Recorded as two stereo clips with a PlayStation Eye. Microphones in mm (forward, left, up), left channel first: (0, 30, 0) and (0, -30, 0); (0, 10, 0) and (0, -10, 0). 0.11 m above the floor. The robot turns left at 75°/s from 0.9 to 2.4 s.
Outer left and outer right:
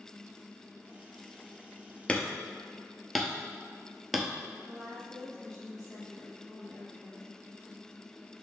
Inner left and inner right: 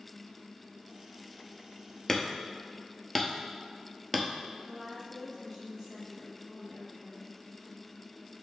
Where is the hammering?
20° left (ahead or behind), 0.7 m; by 4.3 s 5° left (ahead or behind), 0.7 m.